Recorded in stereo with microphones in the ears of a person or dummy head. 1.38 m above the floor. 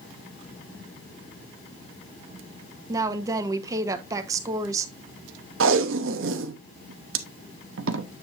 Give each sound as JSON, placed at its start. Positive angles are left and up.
{"t": 2.9, "sound": "a woman speaking", "side_deg": -20, "distance_m": 0.9}
{"t": 5.6, "sound": "tape being pulled", "side_deg": -65, "distance_m": 0.9}